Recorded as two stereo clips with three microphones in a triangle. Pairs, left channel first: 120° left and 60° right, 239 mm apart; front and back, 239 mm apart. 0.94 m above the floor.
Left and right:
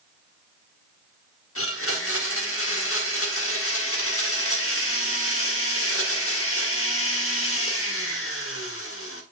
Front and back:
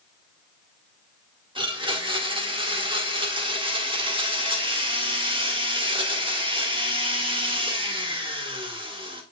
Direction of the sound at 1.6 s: 115° left.